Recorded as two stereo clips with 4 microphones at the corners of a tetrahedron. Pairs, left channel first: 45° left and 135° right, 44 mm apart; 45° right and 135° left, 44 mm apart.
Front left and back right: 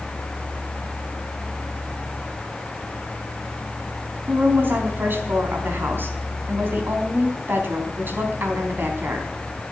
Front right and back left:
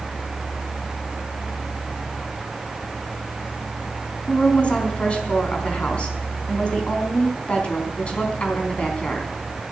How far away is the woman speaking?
About 4 m.